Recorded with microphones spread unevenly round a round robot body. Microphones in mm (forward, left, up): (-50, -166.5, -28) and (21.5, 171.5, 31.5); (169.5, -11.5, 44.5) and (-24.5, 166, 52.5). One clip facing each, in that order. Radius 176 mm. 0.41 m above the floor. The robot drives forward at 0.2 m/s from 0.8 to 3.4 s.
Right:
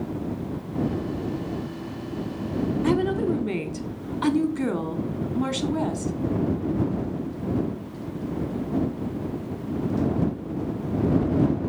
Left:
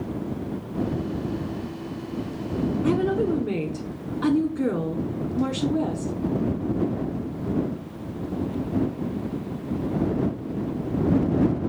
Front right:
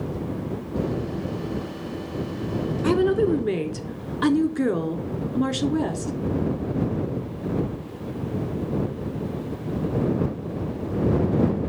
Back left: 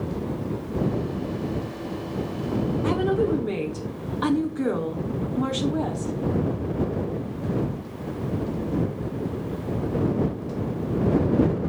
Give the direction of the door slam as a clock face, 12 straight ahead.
No door slam in this recording.